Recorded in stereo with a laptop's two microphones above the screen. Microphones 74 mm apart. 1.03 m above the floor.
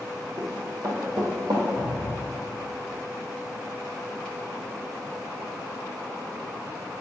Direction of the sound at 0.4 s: 55° right (ahead or behind).